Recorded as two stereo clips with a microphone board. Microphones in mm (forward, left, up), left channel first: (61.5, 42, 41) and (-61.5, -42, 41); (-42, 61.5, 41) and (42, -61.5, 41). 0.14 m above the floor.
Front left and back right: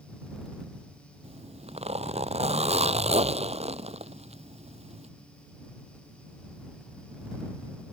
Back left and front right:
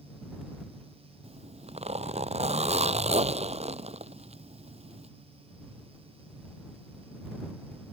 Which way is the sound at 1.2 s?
100° right.